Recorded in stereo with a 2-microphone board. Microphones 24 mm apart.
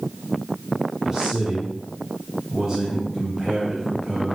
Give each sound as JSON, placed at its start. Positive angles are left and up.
{"t": 1.0, "sound": "a man speaking", "side_deg": -15, "distance_m": 2.5}